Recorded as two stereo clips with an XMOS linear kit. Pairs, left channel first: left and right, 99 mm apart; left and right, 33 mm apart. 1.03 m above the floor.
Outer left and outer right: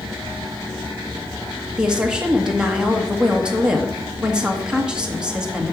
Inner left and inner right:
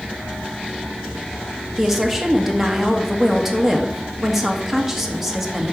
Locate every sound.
1.8 s a woman speaking: 10° right (ahead or behind), 1.4 m